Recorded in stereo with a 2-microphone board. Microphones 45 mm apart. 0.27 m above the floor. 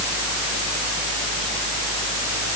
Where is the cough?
No cough in this recording.